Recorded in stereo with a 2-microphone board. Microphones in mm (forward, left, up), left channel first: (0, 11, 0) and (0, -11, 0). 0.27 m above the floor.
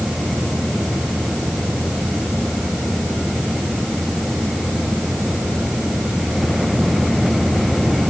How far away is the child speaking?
No child speaking in this recording.